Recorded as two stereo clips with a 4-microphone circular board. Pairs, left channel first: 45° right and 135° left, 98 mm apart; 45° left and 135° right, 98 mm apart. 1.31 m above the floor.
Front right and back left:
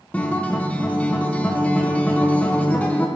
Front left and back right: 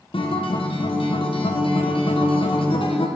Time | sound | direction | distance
0.1 | a guitar | 30° left | 0.9 m